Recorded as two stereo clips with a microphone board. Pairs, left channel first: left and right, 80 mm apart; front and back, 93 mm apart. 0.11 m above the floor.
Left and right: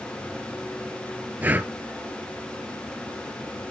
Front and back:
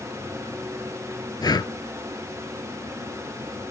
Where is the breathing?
25° right, 0.6 m.